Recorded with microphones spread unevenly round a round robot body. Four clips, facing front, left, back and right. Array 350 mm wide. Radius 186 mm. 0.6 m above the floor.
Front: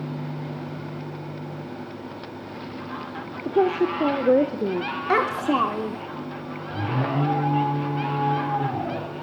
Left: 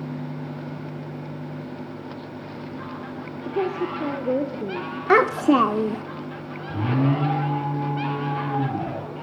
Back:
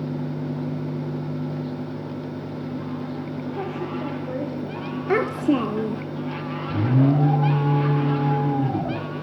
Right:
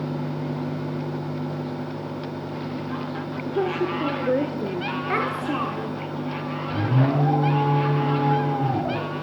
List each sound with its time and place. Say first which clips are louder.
3.5 s a woman speaking: right 1 dB, front 12 dB; 5° right, 1.8 m
5.1 s a child speaking: left 11 dB, back 1 dB; 120° left, 1.0 m
6.7 s an alarm: left 1 dB, back 6 dB; 165° left, 8.5 m